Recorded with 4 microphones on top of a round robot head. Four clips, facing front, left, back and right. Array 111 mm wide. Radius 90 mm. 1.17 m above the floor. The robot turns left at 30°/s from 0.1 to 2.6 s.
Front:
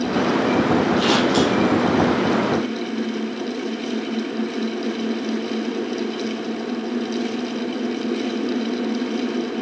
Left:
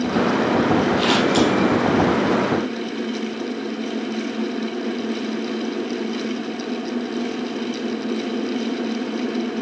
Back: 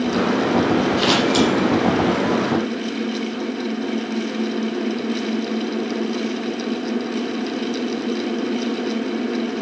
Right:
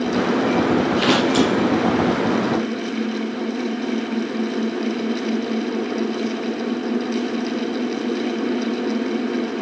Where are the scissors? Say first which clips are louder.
Even, even; 100° right, 3.5 m; by 1.5 s 120° right, 3.5 m.